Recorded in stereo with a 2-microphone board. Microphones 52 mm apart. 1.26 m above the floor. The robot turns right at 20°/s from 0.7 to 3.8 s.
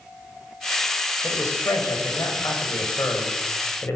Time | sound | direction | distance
1.2 | a man speaking | 75° left | 7 m